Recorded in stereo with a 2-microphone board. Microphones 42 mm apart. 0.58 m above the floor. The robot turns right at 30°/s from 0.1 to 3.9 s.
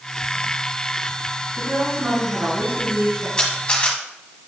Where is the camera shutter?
15° left (ahead or behind), 1.9 m; by 4.0 s 30° left (ahead or behind), 1.9 m.